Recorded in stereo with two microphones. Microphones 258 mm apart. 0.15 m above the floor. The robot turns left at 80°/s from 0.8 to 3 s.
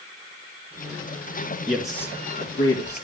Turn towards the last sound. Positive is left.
turn(degrees=90)